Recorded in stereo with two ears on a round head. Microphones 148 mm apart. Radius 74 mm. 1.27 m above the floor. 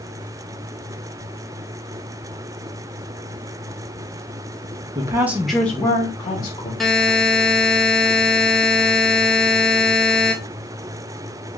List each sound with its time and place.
5.0 s a woman speaking: 25° right (ahead or behind), 0.5 m; by 6.7 s 30° left (ahead or behind), 1.1 m
6.8 s a buzzer: centre (ahead or behind), 0.5 m